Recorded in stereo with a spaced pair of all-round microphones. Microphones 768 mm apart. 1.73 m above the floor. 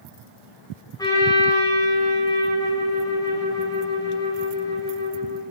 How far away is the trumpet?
About 9.5 m.